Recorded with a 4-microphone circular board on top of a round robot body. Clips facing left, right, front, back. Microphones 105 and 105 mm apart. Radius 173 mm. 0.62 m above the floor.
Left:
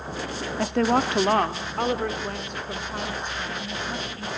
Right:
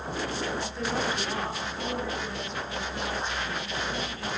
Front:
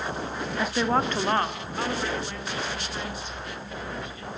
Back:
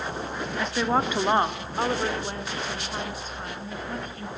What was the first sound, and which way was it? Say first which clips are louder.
A woman speaking: left 8 dB, even; 75° left.